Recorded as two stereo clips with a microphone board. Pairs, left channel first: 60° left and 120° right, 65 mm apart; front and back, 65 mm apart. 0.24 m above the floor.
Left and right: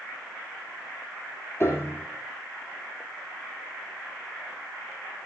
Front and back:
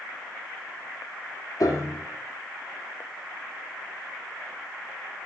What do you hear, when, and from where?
1.6 s a piano: 5° left, 3 m